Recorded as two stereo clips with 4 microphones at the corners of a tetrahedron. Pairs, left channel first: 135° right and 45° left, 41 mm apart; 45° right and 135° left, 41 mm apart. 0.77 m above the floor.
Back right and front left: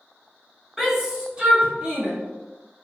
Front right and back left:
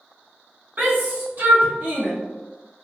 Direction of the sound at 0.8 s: 125° left.